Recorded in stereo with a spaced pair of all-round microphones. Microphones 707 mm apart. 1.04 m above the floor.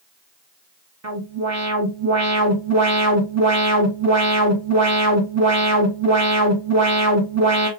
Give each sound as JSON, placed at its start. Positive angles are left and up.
{"t": 1.0, "sound": "an alarm", "side_deg": -25, "distance_m": 1.3}